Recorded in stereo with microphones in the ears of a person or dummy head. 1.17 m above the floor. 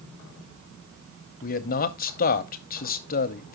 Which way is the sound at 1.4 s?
45° left (ahead or behind).